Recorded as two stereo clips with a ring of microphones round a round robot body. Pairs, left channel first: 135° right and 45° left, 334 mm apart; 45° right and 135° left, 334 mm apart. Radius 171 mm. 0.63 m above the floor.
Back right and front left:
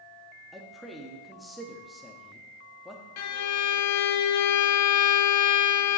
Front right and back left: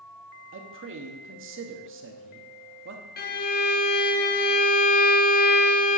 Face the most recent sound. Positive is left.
turn(degrees=-105)